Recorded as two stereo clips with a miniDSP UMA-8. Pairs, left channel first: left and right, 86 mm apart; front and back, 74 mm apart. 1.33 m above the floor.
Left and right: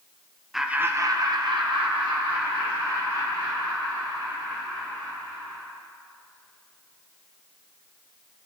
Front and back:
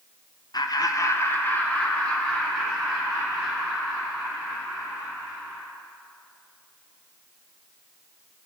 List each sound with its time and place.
0.5 s laughter: straight ahead, 0.5 m; by 5.7 s 90° right, 4 m